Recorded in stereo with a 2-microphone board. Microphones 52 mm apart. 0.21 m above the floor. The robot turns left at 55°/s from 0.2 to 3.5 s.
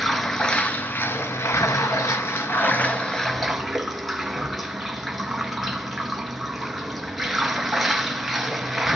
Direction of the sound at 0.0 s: 175° left.